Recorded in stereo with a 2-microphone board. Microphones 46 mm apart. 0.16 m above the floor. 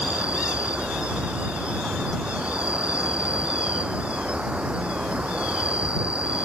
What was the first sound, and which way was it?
An insect, 25° right (ahead or behind).